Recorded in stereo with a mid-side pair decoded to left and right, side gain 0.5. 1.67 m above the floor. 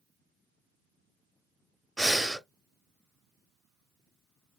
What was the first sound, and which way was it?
Breathing, 5° right.